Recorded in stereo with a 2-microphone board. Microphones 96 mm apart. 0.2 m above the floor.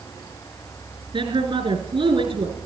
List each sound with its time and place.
1.1 s a woman speaking: 60° right (ahead or behind), 3.5 m